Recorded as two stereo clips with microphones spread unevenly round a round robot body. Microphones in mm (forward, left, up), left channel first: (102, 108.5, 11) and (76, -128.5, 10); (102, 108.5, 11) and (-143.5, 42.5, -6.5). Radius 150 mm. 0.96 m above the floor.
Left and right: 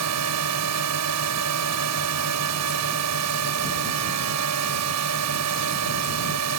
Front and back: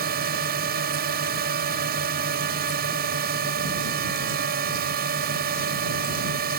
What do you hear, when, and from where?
0.0 s a drone: 105° right